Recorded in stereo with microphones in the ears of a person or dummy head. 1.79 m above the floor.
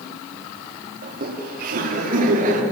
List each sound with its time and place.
1.0 s laughter: 50° right (ahead or behind), 4 m; by 2.6 s 45° right (ahead or behind), 5 m